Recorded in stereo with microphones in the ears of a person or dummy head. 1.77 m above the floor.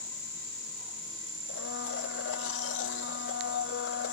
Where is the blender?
70° left (ahead or behind).